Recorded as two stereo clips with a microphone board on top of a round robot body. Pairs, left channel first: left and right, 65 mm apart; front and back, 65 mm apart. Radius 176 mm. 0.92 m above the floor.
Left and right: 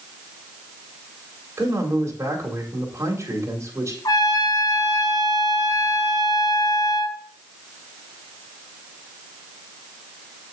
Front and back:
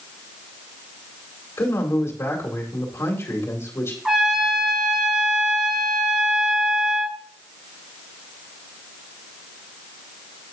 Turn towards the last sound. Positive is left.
turn(degrees=100)